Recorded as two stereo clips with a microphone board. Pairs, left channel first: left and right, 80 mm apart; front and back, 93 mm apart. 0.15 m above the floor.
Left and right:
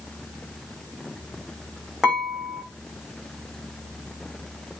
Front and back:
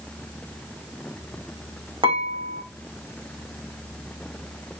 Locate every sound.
2.0 s dishes clattering: 170° right, 5.5 m